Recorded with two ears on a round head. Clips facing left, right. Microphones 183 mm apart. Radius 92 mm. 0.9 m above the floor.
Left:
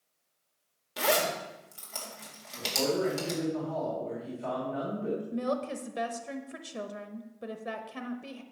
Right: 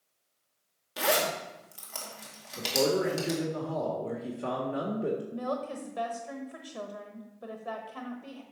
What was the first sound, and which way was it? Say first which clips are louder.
A zipper: even; centre (ahead or behind).